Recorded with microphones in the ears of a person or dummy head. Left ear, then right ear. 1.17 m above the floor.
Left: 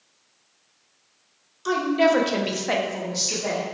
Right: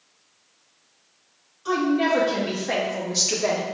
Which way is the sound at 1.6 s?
65° left (ahead or behind).